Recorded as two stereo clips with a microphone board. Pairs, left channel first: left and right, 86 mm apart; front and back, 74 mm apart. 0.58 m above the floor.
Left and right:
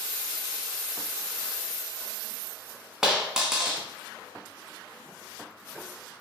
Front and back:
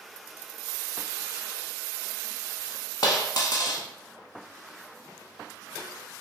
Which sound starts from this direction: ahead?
A dropped coin, at 3.0 s.